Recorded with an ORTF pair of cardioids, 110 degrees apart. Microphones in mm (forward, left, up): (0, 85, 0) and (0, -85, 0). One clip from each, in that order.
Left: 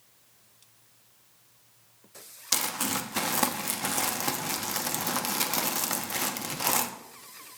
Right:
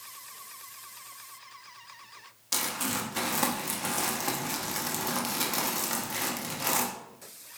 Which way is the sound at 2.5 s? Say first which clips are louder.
Left 2 dB; 35° left.